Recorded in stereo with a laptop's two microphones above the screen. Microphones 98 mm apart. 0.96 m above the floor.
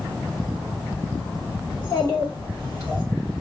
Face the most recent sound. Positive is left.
turn(degrees=40)  # may be behind; listen again after turning